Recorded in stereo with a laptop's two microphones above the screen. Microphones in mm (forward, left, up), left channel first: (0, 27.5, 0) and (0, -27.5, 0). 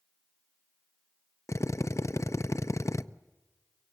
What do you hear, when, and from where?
1.5 s a drill: 65° left (ahead or behind), 0.5 m